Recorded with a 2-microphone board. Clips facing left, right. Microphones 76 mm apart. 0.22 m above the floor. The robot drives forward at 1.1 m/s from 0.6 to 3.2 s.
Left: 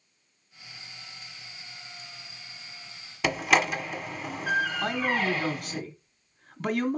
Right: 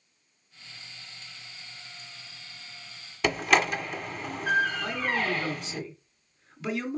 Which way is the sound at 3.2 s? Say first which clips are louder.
Even; 5° left (ahead or behind).